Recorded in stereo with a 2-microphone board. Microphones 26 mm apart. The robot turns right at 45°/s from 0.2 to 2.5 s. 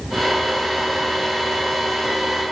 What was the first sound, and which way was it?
Only background noise.